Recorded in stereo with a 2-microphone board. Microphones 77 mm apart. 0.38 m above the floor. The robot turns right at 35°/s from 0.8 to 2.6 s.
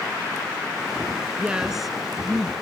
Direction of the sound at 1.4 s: 15° right.